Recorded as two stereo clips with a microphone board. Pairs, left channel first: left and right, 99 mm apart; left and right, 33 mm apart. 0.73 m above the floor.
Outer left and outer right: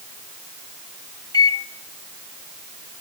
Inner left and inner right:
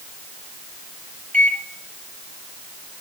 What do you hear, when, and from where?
1.3 s a microwave: 40° left (ahead or behind), 1.0 m